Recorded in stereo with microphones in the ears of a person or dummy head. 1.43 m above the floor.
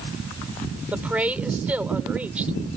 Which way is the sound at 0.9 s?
5° right (ahead or behind).